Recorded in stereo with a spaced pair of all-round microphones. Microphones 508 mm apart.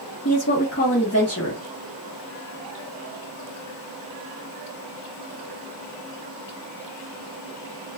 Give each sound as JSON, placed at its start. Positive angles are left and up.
{"t": 0.2, "sound": "a woman speaking", "side_deg": 30, "distance_m": 1.1}